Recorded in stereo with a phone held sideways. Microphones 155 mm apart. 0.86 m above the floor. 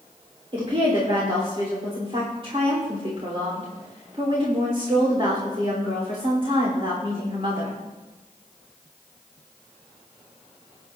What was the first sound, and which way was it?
A woman speaking, 40° right (ahead or behind).